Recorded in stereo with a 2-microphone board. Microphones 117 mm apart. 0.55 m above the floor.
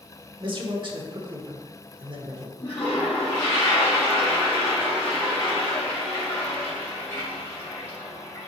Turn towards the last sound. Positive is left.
turn(degrees=20)  # may be behind; listen again after turning